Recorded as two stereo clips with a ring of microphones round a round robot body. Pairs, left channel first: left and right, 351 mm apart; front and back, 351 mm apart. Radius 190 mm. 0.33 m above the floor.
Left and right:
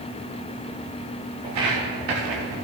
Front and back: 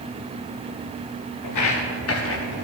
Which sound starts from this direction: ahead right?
Footsteps, at 1.4 s.